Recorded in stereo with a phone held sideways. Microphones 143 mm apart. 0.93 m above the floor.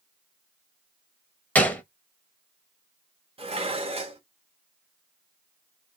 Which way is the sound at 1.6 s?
10° left (ahead or behind).